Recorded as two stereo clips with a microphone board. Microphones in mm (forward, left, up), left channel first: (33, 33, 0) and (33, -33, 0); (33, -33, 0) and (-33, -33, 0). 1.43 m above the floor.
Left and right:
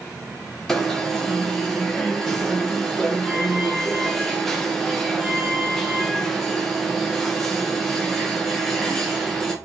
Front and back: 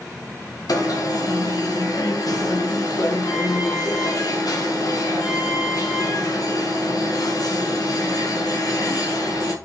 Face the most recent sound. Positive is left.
turn(degrees=5)